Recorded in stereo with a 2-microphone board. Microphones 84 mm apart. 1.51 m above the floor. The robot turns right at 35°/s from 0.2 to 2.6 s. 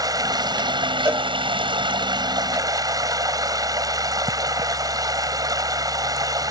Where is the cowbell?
35° right (ahead or behind); by 1.3 s 30° right (ahead or behind).